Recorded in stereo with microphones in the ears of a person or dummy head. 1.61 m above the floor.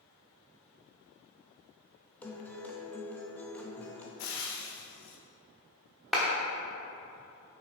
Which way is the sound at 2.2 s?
10° left (ahead or behind).